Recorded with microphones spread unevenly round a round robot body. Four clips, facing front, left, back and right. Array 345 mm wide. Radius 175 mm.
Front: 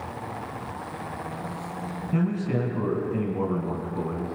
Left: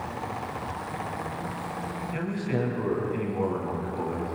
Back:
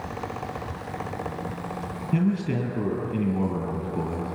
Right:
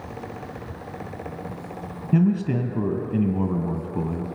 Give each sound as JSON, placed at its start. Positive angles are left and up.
{"t": 2.1, "sound": "a man speaking", "azimuth_deg": -100, "distance_m": 3.0}